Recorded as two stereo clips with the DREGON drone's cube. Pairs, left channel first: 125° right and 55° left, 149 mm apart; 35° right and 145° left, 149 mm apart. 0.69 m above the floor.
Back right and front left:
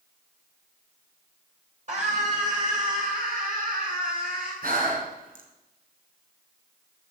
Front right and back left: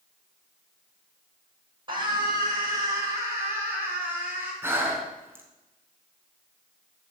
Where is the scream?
90° left, 3 m; by 4.5 s 70° left, 5 m.